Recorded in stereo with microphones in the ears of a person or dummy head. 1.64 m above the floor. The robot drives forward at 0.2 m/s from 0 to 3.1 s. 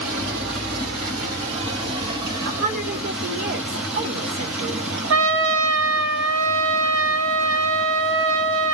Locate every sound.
0.0 s running water: 85° right, 2 m; by 8.7 s 75° right (ahead or behind), 2 m
2.5 s a woman speaking: 55° right (ahead or behind), 1.9 m
5.1 s a trumpet: 70° right (ahead or behind), 0.8 m